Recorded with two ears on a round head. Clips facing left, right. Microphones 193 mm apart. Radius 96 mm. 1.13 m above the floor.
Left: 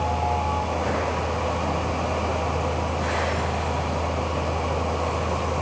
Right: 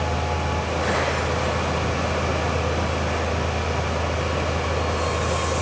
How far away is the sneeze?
I don't hear a sneeze.